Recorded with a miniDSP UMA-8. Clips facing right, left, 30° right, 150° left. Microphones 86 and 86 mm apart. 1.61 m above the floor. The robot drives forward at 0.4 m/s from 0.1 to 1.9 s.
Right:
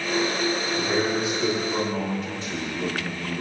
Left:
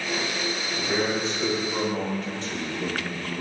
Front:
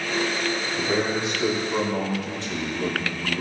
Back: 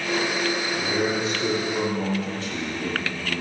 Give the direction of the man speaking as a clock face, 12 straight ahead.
12 o'clock.